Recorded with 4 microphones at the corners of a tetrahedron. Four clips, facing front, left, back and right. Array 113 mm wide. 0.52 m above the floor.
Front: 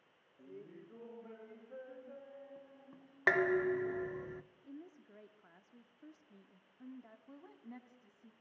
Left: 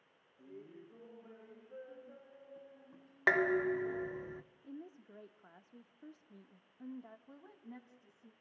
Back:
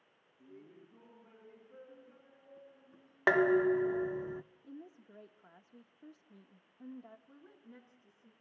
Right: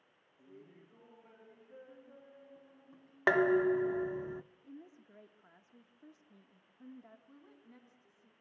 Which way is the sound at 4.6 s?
135° left.